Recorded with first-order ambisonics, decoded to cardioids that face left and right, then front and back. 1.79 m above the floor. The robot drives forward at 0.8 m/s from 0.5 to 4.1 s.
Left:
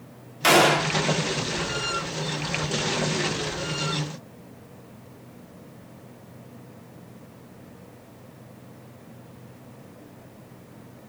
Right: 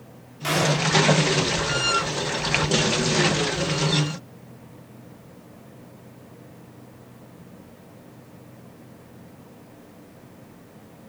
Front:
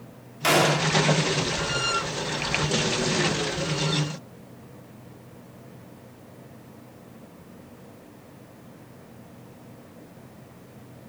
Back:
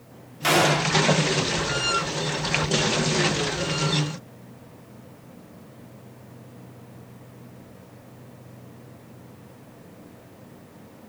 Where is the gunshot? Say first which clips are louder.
Left 5 dB, back 1 dB; 80° left, 0.9 m; by 0.9 s 115° left, 0.9 m.